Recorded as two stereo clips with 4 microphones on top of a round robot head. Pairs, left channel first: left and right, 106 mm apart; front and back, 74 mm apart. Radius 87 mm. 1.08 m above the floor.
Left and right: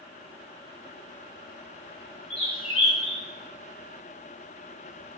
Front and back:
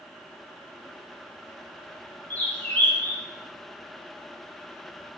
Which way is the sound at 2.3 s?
70° left.